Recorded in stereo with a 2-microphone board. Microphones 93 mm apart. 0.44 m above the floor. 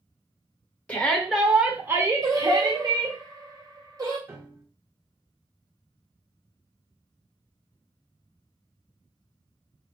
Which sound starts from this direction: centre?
A shout, at 0.9 s.